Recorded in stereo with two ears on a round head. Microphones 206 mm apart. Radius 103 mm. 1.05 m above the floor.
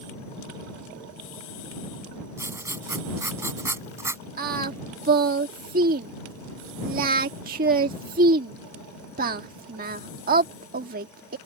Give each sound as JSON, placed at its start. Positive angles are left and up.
{"t": 2.4, "sound": "writing", "side_deg": -10}
{"t": 4.4, "sound": "singing", "side_deg": -40}